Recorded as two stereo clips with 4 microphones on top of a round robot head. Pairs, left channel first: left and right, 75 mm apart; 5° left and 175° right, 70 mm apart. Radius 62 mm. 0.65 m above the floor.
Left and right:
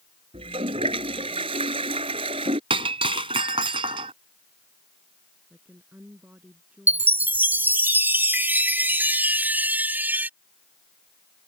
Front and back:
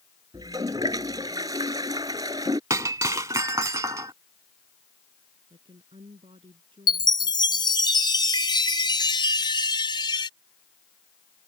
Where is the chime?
25° right.